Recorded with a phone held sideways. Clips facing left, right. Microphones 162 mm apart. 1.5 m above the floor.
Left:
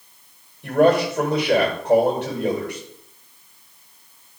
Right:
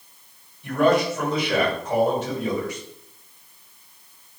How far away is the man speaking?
About 5.5 m.